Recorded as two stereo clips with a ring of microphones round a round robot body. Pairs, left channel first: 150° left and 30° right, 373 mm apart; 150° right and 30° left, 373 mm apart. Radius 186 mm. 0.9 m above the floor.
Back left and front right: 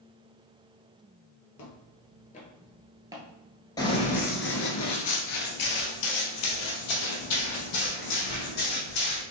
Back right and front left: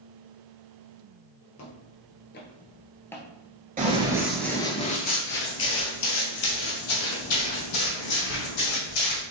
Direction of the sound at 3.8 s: 80° left.